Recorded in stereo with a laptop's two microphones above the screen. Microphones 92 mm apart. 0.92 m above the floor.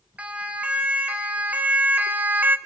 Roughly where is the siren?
Centre.